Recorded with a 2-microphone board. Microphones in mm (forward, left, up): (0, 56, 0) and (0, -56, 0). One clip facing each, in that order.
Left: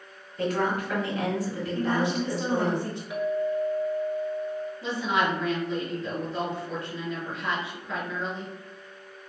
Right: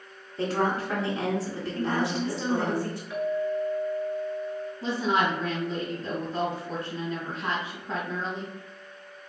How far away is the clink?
About 1.2 m.